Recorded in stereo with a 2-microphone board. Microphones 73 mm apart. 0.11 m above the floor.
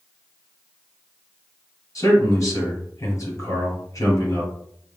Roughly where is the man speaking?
Left.